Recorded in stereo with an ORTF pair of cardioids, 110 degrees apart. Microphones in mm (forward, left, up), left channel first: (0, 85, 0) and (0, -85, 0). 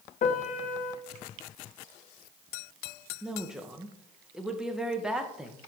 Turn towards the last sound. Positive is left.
turn(degrees=-5)